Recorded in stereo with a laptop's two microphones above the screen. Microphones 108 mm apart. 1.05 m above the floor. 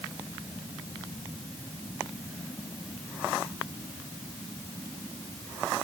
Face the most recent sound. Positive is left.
No sound to turn to.